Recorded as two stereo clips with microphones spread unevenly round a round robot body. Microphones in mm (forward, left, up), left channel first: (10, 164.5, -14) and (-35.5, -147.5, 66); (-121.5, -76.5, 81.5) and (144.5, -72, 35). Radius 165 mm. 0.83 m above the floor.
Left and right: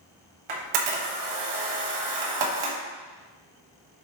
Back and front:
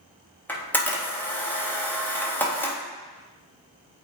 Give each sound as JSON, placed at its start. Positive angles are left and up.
{"t": 0.5, "sound": "a camera shutter", "azimuth_deg": -90, "distance_m": 1.9}